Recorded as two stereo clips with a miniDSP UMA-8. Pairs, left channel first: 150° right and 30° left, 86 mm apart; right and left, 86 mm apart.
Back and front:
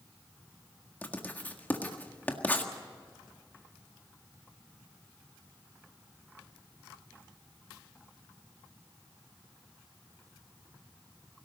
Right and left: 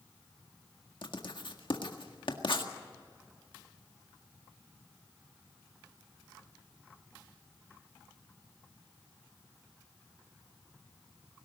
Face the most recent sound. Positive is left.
turn(degrees=-80)